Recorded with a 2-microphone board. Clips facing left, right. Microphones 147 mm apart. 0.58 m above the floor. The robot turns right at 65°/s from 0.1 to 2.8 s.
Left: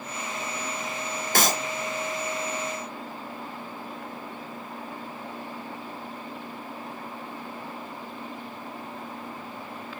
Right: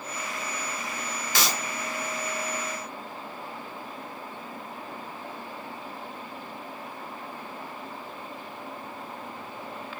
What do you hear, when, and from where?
1.4 s a clap: 50° left (ahead or behind), 0.9 m; by 1.6 s 40° left (ahead or behind), 0.9 m